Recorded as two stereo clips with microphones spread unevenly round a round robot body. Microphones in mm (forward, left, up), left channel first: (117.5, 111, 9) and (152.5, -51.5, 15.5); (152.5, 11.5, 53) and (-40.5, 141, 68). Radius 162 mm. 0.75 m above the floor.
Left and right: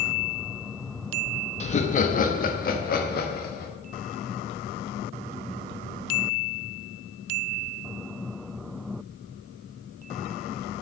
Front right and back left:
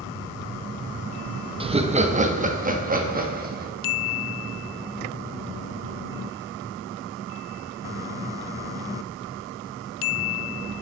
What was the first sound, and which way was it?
Laughter, 85° left.